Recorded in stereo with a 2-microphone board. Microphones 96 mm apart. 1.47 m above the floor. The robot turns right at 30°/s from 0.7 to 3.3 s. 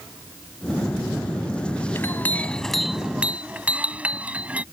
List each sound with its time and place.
1.9 s a clink: 155° left; by 4.6 s 165° right